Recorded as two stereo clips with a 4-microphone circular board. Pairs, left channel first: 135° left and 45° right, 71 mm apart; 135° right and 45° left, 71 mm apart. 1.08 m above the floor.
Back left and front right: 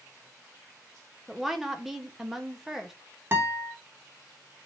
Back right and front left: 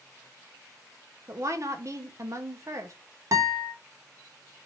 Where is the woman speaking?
40° left, 0.9 m.